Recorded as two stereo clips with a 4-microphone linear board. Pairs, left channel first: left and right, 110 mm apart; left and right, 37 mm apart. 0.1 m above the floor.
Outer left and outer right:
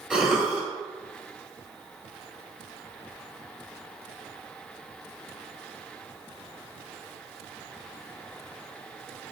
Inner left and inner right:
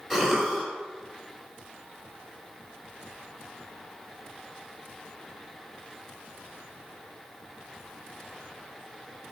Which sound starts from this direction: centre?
A cough, at 0.1 s.